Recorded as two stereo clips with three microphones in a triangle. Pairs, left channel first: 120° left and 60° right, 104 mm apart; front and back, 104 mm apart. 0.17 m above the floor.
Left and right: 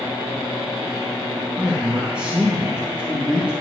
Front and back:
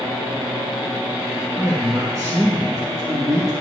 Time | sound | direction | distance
1.6 | a man speaking | 135° right | 2 m